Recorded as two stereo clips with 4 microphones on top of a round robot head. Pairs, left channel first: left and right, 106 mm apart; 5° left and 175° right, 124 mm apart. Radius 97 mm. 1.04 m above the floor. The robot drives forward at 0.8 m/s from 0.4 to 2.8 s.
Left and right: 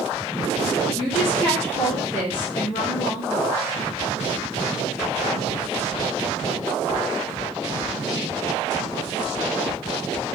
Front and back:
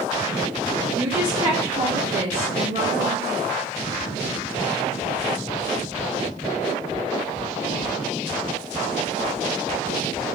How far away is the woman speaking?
About 1.0 m.